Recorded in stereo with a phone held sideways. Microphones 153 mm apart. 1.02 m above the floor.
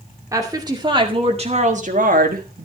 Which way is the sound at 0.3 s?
20° right (ahead or behind).